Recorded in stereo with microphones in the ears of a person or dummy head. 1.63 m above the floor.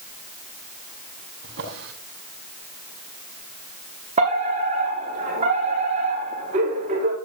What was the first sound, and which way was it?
A drawer, 60° right (ahead or behind).